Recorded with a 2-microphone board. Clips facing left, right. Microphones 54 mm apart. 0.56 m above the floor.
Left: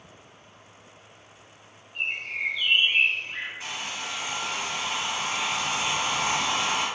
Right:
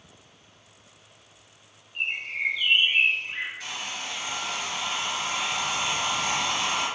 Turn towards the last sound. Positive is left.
turn(degrees=20)  # may be behind; listen again after turning